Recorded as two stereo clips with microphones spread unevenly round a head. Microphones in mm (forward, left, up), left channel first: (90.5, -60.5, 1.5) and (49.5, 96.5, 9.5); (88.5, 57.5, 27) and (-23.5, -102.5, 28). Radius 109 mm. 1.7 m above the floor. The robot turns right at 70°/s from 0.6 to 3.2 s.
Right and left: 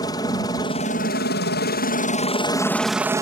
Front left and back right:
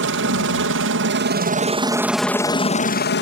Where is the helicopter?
145° right; by 3.2 s 35° left.